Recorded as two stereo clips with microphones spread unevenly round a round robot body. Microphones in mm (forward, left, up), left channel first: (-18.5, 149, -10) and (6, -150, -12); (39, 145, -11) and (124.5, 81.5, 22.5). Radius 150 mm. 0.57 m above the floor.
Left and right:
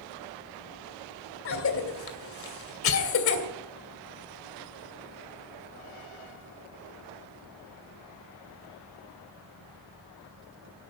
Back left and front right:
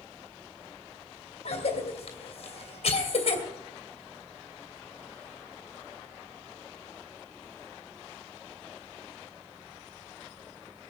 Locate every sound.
1.4 s a cough: 140° left, 2.5 m